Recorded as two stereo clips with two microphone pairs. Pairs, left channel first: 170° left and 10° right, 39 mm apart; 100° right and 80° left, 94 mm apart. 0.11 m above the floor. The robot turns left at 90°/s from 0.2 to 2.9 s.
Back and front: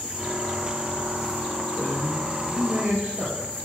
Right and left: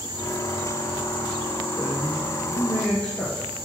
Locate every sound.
1.8 s a man speaking: 85° left, 2 m; by 3.5 s 15° right, 2 m